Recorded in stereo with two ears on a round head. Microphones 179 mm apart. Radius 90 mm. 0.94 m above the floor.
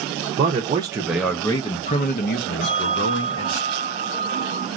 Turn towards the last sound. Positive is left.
turn(degrees=50)  # may be behind; listen again after turning